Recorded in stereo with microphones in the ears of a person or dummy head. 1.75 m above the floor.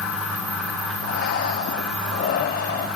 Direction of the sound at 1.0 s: 55° left (ahead or behind).